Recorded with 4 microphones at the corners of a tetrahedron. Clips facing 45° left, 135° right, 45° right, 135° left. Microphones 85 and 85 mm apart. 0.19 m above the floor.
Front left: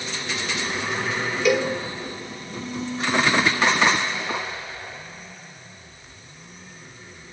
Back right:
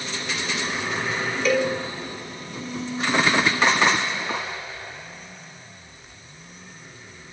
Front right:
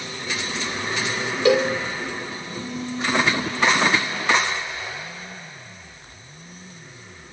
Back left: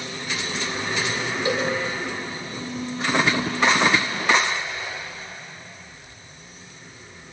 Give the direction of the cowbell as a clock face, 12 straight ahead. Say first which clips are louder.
Front left 1 dB, front right 7 dB; 1 o'clock.